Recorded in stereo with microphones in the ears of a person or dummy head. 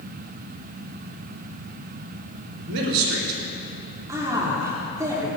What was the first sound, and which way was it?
A man speaking, 75° right (ahead or behind).